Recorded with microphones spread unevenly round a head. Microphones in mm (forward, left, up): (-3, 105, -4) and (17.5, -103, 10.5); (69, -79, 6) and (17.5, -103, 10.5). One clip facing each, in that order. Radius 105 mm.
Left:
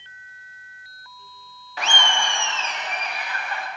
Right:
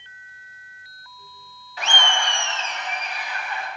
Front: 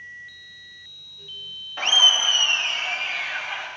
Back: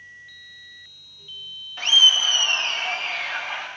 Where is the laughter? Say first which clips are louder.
Even, back 1 dB; 55° left, 0.6 m; by 3.7 s 140° left, 3 m.